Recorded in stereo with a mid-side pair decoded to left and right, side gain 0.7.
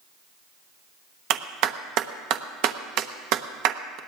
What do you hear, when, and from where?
1.3 s a clap: 60° right, 1.1 m